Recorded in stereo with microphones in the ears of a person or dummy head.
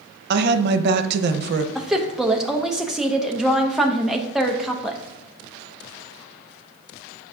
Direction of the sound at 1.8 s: Centre (ahead or behind).